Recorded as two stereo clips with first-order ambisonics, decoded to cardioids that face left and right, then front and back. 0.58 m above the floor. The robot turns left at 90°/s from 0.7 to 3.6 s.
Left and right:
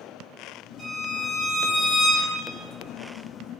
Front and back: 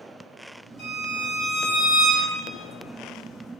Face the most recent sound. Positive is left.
turn(degrees=120)